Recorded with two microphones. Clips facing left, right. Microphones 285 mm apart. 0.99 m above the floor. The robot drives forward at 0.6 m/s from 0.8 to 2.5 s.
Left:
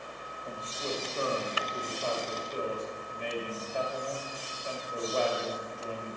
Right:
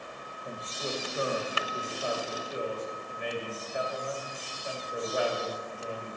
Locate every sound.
0.5 s a man speaking: 15° right (ahead or behind), 1.2 m; by 6.2 s 10° right (ahead or behind), 2 m